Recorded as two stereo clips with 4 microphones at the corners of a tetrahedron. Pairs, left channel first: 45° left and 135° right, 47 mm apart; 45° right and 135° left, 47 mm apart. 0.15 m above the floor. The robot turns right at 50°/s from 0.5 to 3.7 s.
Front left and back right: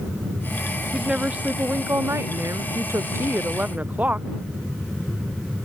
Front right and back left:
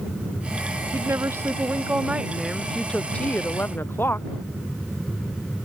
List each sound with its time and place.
0.9 s a woman speaking: 140° left; by 4.3 s 80° right